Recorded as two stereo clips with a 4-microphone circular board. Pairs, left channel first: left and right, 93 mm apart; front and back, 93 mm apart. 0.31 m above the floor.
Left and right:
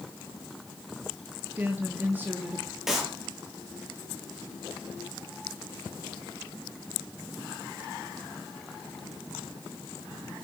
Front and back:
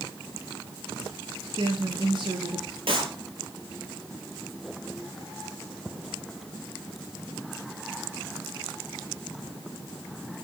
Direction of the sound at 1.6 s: 160° right.